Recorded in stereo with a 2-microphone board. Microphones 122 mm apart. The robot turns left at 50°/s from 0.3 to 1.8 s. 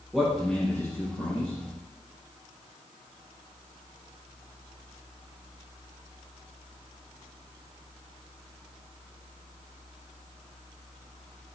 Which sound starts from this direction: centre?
A man speaking, at 0.1 s.